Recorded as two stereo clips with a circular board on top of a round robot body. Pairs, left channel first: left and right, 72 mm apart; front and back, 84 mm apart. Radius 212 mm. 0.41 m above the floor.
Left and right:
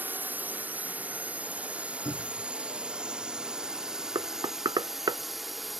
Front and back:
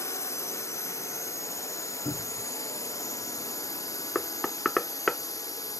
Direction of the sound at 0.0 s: 35° right.